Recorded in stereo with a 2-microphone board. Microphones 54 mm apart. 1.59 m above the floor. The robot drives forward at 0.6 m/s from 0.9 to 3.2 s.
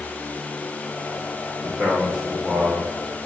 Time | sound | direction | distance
1.6 | a man speaking | 15° right (ahead or behind) | 1.4 m